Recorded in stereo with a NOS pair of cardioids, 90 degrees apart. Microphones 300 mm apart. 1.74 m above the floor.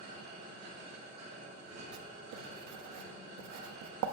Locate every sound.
0.0 s a machine running: 60° right, 2 m
1.9 s writing: 70° right, 0.6 m